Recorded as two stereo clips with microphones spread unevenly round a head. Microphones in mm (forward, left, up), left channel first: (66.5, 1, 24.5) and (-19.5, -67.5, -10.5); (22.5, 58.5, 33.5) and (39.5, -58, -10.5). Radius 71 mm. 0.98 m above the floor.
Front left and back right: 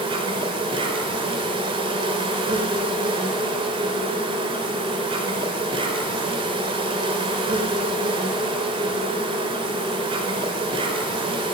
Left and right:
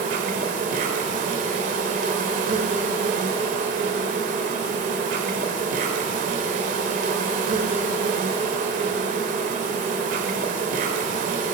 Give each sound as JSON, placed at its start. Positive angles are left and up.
{"t": 0.0, "sound": "an insect", "azimuth_deg": -100, "distance_m": 0.8}